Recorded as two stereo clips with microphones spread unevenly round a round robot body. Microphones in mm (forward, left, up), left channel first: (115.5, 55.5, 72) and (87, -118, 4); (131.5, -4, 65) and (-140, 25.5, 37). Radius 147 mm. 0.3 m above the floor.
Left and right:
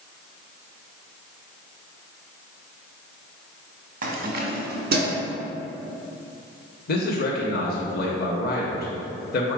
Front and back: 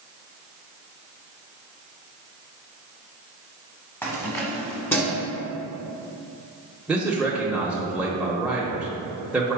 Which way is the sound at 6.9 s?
100° left.